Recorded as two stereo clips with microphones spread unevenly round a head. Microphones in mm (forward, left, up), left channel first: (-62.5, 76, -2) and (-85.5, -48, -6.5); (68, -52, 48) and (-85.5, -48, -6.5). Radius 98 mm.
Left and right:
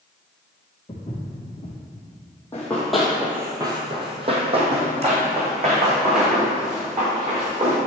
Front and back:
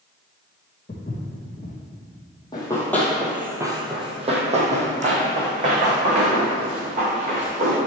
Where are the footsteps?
15° left, 1.8 m.